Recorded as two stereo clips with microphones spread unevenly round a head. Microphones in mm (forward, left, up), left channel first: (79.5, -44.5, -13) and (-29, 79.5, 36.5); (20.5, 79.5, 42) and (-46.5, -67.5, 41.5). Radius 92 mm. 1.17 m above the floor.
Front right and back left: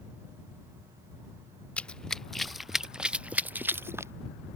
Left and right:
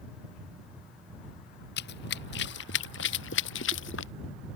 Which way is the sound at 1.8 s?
35° left.